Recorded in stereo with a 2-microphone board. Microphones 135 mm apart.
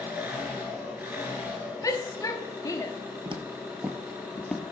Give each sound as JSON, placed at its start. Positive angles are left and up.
{"t": 0.0, "sound": "an engine running", "side_deg": -20, "distance_m": 3.0}
{"t": 1.8, "sound": "a shout", "side_deg": 25, "distance_m": 0.7}
{"t": 3.2, "sound": "footsteps", "side_deg": -40, "distance_m": 0.8}